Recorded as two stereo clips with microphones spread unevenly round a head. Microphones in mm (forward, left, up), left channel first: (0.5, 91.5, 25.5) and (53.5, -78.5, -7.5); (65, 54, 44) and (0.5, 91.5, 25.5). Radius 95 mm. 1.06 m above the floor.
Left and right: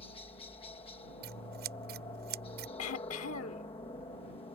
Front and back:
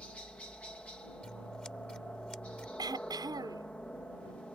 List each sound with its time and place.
0.0 s a helicopter: 50° left
1.2 s scissors: 115° right
2.8 s throat clearing: 120° left